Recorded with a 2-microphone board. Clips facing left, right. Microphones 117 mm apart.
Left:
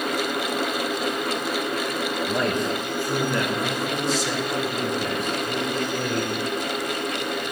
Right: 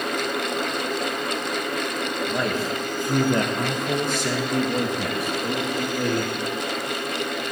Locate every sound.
2.3 s a man speaking: 5° left (ahead or behind), 1.5 m; by 6.3 s 75° right (ahead or behind), 3 m